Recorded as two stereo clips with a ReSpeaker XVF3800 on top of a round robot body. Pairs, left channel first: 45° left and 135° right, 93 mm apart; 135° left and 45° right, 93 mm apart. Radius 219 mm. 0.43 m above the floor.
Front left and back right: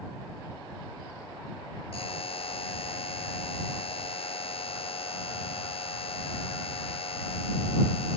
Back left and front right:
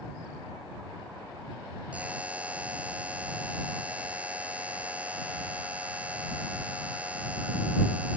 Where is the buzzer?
30° left.